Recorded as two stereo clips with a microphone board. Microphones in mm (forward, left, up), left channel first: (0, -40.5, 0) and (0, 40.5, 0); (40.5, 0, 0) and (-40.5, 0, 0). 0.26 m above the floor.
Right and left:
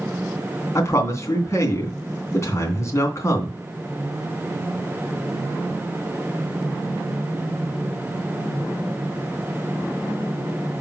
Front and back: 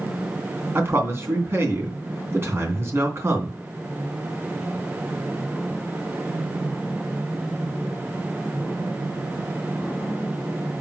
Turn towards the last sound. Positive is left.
turn(degrees=-130)